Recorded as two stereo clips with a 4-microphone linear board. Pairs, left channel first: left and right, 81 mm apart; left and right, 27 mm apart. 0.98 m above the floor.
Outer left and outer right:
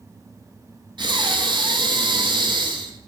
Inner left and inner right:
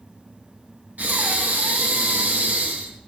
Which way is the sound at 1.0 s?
70° right (ahead or behind).